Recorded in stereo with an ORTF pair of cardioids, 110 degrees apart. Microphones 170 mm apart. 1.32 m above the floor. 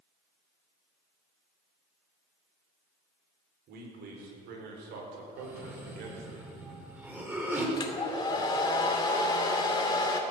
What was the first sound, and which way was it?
A man speaking, 70° right.